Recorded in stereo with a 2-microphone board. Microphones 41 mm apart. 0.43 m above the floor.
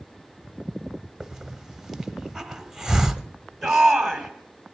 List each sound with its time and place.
1.2 s a hiss: 5° right (ahead or behind), 0.8 m
3.6 s a shout: centre (ahead or behind), 3 m